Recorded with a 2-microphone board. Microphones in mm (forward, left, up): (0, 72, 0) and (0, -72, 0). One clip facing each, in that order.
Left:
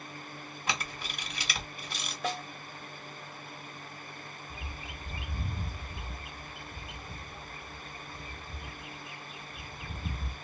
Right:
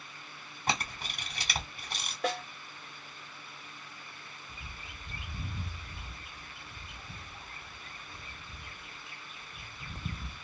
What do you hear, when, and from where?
0.7 s a camera shutter: 45° right (ahead or behind), 1.5 m
2.2 s a snare drum: 60° right (ahead or behind), 1.6 m
4.5 s a bird: 5° left (ahead or behind), 0.8 m